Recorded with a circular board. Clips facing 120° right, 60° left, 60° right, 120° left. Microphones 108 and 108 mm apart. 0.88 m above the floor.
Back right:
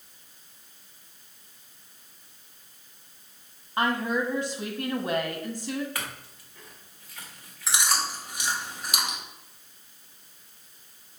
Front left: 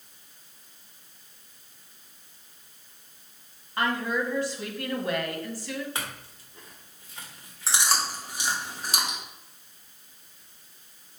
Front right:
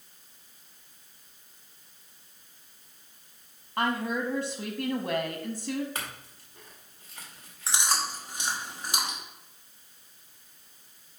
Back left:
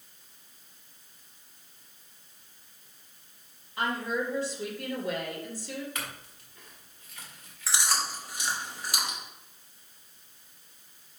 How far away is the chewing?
About 2.0 m.